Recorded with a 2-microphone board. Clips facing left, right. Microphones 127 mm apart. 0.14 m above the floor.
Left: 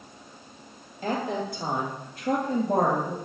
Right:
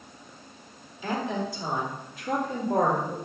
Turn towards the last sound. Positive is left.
turn(degrees=70)  # may be behind; listen again after turning